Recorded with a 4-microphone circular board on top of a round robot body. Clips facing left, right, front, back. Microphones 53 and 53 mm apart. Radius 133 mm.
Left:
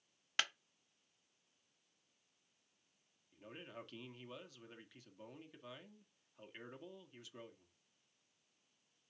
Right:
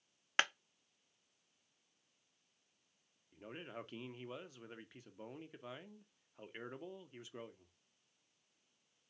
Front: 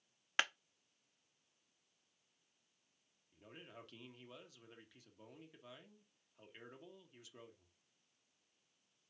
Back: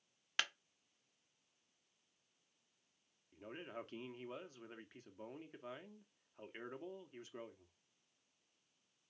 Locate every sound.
0.4 s a clap: 55° right, 0.6 m
3.3 s a man speaking: 145° right, 1.3 m